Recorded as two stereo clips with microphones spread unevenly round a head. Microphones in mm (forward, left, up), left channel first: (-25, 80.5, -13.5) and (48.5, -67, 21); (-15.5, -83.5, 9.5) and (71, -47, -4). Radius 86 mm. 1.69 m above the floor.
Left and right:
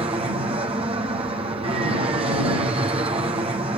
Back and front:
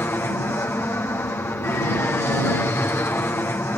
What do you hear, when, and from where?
0.0 s an aircraft: 110° right